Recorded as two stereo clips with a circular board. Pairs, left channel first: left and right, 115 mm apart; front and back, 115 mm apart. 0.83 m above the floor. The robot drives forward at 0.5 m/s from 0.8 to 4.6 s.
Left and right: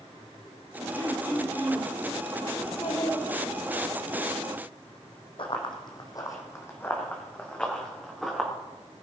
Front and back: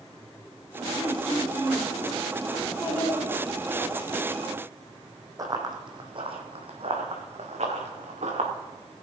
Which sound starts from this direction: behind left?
Running footsteps, at 5.4 s.